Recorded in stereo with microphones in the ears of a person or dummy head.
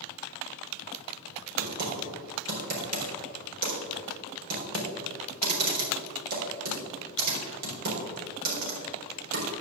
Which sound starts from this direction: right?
Typing on a keyboard, at 1.6 s.